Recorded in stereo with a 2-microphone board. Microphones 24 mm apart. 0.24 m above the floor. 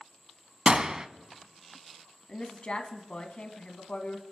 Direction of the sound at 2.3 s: 50° left (ahead or behind).